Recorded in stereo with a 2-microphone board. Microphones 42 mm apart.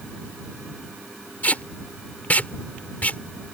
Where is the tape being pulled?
35° left (ahead or behind).